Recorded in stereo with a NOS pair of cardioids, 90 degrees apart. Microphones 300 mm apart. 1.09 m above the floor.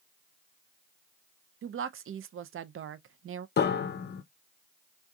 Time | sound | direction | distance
1.6 | a woman speaking | 45° right | 0.6 m
3.6 | a piano | 35° left | 0.6 m